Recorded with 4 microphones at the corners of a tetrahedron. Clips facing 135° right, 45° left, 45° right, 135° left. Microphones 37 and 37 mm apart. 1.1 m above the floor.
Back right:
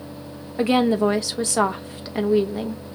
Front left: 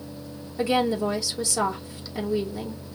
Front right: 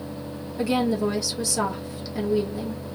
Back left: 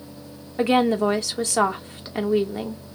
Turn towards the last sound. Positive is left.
turn(degrees=175)